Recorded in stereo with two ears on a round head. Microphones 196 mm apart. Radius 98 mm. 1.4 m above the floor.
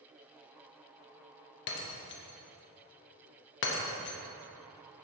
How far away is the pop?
No pop in this recording.